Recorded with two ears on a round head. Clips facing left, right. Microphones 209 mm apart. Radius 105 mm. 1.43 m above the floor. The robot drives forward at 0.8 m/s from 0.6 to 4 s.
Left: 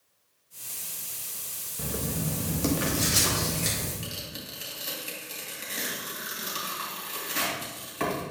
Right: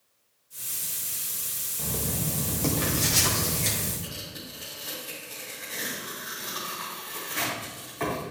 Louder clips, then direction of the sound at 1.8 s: Left 1 dB; 20° left (ahead or behind).